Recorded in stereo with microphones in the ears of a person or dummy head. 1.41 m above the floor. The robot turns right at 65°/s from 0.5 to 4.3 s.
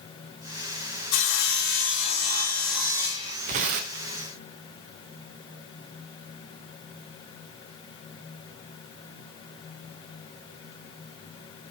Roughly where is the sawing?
Left.